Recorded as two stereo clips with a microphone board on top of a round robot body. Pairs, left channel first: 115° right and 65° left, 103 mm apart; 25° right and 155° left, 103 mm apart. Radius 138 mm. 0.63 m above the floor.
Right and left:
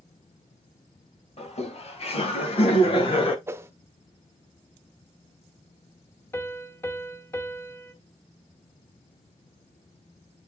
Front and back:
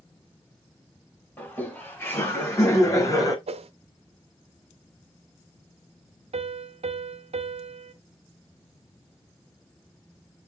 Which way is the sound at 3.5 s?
135° left.